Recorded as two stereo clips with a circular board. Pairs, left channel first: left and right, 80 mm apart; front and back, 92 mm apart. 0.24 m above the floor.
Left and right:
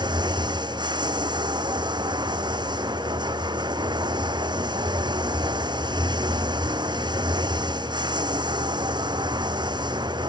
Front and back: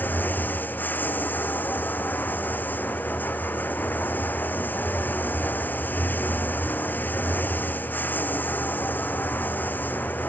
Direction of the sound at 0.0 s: 70° right.